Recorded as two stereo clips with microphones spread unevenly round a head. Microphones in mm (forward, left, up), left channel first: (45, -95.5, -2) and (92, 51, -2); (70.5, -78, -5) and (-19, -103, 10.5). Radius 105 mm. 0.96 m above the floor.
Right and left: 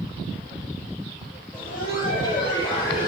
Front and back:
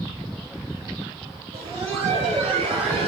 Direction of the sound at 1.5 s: 175° left.